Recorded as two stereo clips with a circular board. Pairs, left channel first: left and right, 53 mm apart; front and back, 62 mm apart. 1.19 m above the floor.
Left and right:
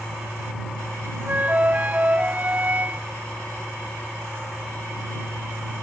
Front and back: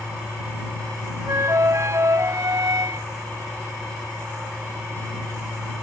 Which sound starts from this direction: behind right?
A flute, at 1.3 s.